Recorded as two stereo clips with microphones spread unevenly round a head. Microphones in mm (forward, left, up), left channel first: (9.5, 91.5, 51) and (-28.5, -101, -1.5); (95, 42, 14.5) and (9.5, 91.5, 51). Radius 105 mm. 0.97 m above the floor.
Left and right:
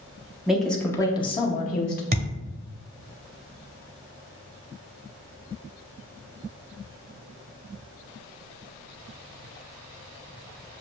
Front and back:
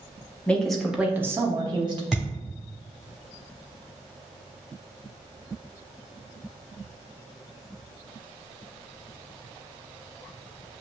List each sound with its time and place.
0.5 s a woman speaking: 45° right, 0.8 m; by 2.0 s 110° left, 0.9 m
2.1 s a thud: 145° right, 0.7 m